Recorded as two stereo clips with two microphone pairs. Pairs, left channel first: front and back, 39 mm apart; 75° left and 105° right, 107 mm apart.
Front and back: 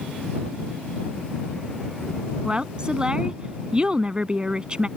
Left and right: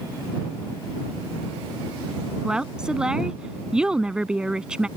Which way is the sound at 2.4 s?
Straight behind.